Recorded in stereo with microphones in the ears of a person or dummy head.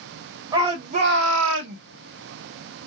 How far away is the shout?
About 0.9 m.